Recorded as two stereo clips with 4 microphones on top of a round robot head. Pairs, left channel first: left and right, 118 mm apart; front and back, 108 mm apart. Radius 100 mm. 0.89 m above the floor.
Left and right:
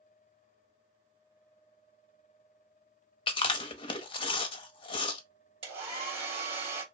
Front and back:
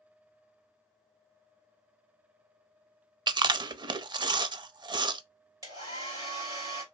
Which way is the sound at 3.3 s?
135° left.